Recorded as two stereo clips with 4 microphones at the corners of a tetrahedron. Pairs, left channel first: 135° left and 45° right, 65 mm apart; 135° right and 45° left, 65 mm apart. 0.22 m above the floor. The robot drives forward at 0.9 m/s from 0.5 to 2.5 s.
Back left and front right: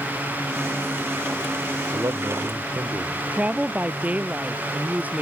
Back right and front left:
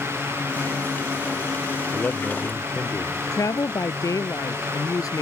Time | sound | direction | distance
1.9 | a man speaking | 70° right | ?
3.3 | a woman speaking | 110° right | ?